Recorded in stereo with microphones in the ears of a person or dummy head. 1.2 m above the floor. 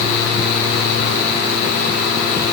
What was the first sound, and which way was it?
Only background noise.